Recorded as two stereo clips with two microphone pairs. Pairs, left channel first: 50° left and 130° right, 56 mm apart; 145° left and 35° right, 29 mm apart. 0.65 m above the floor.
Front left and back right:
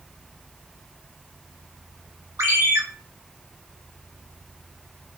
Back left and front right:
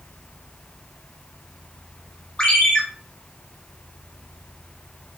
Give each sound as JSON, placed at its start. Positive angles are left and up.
{"t": 2.4, "sound": "a ringtone", "azimuth_deg": -155, "distance_m": 1.1}